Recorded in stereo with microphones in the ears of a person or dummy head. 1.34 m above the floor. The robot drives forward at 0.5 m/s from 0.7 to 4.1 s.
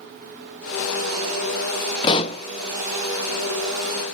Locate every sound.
2.0 s a pop: 30° left (ahead or behind), 0.6 m; by 2.4 s 40° left (ahead or behind), 0.5 m